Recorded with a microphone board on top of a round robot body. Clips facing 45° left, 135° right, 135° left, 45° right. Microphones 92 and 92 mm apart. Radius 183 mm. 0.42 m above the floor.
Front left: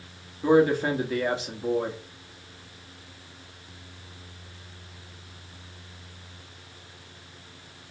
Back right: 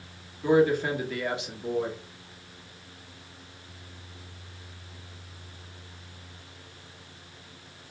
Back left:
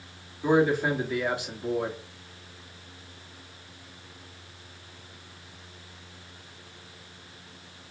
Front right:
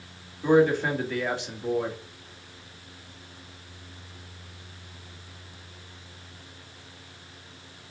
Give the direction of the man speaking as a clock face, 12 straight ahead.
10 o'clock.